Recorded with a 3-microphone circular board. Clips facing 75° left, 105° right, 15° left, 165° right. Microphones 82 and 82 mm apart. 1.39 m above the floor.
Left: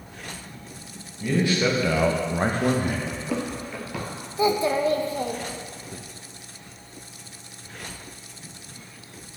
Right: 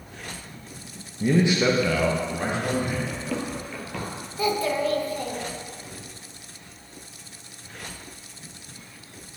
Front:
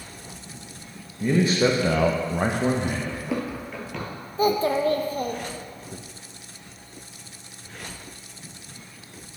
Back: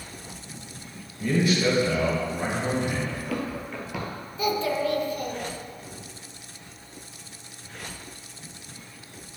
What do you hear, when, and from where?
1.2 s a man speaking: 50° right, 1.0 m; by 3.0 s 50° left, 1.3 m
3.1 s running footsteps: 20° left, 1.5 m; by 4.1 s 155° left, 1.4 m
4.4 s a child speaking: 25° left, 0.6 m